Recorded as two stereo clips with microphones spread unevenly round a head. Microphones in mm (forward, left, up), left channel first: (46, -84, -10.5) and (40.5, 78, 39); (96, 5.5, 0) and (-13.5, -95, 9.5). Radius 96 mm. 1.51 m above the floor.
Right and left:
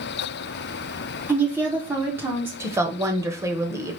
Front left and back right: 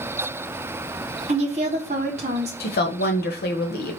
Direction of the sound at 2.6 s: 25° left.